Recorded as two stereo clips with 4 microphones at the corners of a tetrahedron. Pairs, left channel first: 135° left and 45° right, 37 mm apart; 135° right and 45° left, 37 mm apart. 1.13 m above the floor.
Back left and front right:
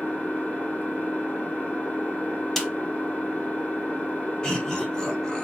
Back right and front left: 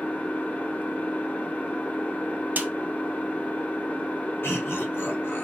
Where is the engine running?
Straight behind, 2 m.